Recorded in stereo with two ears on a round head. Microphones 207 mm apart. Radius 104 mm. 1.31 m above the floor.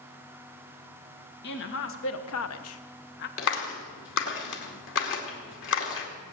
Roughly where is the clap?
Left.